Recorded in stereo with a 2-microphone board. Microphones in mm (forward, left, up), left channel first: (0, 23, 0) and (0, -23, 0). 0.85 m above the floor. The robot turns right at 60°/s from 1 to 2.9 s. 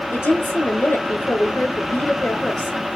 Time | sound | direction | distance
0.1 | a woman speaking | 70° left | 4 m